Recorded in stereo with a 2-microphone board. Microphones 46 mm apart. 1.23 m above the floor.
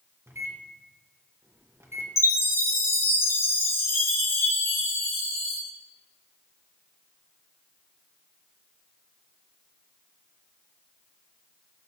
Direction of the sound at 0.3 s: 70° right (ahead or behind).